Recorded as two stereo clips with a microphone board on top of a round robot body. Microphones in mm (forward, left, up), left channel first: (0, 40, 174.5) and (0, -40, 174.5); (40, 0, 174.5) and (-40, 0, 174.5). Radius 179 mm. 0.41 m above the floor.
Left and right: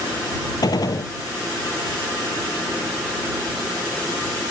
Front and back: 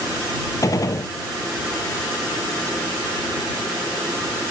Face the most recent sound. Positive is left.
turn(degrees=50)